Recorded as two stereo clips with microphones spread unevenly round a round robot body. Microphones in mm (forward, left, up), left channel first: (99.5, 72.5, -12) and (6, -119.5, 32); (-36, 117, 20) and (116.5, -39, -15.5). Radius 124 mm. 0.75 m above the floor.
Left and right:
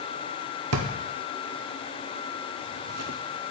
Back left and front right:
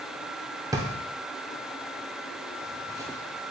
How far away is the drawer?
About 0.6 m.